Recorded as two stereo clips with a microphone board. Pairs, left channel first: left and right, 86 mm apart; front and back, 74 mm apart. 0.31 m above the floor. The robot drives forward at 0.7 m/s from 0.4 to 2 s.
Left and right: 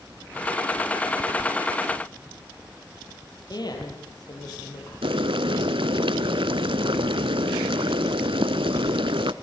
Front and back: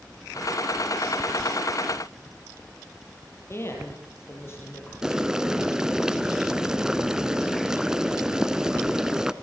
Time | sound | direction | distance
3.5 | a woman speaking | 50° left | 8 m
5.0 | boiling | 100° right | 0.8 m